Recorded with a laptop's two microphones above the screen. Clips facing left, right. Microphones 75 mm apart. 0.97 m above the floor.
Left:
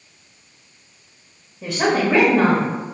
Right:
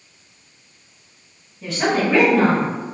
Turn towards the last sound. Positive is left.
turn(degrees=10)  # may be behind; listen again after turning